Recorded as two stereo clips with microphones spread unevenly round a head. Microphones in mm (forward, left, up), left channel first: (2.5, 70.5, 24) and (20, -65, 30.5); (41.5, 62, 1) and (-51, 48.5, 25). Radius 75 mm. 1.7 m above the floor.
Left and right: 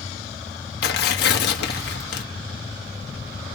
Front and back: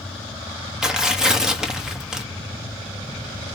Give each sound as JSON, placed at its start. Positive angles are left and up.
{"t": 0.8, "sound": "tearing paper", "azimuth_deg": 105, "distance_m": 1.4}